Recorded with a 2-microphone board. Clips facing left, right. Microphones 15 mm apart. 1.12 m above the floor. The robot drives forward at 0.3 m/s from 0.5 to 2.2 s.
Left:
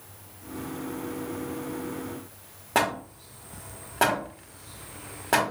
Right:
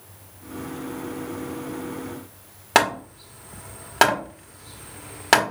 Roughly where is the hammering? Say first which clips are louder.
Right 6 dB; right.